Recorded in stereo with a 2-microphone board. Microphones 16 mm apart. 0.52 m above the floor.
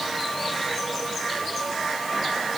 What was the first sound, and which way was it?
Only background noise.